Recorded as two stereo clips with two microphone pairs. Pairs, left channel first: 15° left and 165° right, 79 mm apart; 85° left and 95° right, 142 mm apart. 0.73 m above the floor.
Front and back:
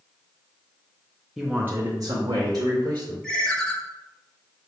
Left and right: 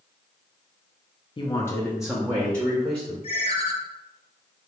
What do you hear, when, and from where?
1.4 s a man speaking: 110° left, 0.5 m; by 3.1 s 150° right, 1.2 m
3.2 s a ringtone: 90° left, 0.6 m